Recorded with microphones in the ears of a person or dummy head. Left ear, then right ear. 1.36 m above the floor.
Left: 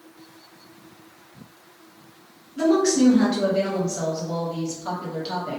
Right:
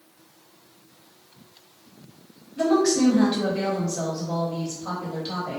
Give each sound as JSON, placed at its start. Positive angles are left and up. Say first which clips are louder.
{"t": 2.6, "sound": "a woman speaking", "louder": "left 1 dB", "side_deg": 0, "distance_m": 0.8}